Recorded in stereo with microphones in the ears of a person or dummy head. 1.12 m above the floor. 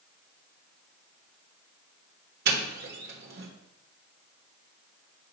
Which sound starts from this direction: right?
A doorbell, at 2.5 s.